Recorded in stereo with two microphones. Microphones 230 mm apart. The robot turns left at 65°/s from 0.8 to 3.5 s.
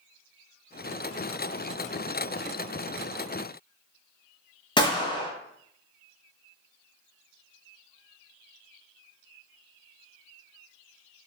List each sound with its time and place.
4.8 s a gunshot: 20° left (ahead or behind), 0.7 m